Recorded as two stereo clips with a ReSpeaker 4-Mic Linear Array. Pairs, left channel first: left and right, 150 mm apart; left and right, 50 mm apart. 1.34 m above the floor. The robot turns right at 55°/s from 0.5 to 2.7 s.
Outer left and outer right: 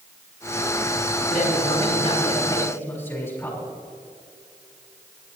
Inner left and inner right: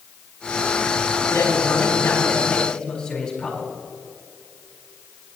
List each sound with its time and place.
1.3 s a man speaking: 85° left, 4 m; by 3.7 s 165° left, 4 m